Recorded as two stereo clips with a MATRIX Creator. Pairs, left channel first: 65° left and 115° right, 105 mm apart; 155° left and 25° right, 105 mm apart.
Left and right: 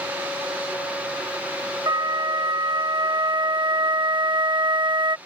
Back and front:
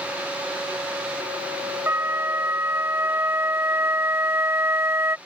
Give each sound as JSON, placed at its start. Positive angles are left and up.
{"t": 1.9, "sound": "a flute", "azimuth_deg": -80}